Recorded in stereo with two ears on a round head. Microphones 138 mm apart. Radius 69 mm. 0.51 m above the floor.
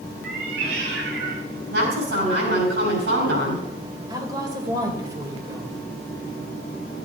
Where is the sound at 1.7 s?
75° right (ahead or behind), 5.5 m.